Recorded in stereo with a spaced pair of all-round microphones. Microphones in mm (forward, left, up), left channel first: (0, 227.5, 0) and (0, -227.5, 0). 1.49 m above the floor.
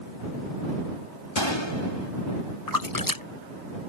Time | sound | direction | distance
1.4 | a gunshot | 70° left (ahead or behind) | ?
2.7 | a splash | 45° left (ahead or behind) | ?